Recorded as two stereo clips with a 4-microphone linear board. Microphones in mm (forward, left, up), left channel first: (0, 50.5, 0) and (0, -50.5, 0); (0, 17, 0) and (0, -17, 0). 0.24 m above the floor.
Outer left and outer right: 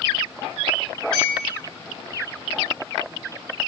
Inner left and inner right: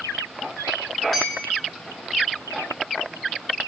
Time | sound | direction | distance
1.1 | a clink | 5° left (ahead or behind) | 6 m